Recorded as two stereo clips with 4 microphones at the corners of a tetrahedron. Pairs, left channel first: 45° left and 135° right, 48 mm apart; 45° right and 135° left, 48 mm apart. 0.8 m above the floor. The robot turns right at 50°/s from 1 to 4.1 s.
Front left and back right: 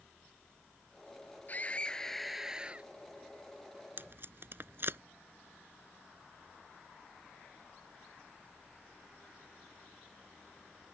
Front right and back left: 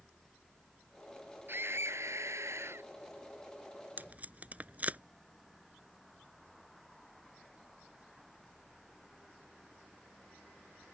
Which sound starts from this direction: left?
A scream, at 1.5 s.